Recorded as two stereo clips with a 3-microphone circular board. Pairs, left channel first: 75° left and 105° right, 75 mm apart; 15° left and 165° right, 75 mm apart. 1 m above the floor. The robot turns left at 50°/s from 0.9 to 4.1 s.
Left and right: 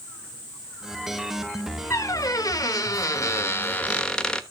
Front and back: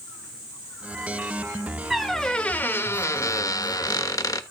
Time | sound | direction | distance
1.9 | a squeak | 105° left | 0.9 m